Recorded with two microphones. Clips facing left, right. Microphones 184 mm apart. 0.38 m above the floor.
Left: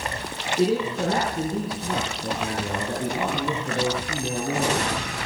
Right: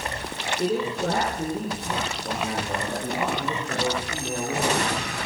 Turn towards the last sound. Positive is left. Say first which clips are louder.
# left 3 dB
turn(degrees=80)